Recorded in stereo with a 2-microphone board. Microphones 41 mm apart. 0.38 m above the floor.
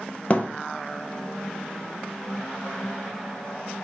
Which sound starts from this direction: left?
A thud, at 0.3 s.